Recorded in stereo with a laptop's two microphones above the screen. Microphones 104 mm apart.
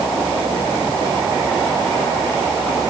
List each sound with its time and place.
Only background noise.